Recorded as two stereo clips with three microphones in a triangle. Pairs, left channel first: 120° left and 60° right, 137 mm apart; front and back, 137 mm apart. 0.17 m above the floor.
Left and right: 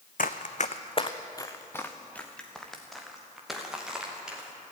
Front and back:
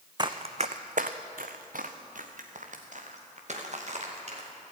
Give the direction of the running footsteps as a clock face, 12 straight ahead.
8 o'clock.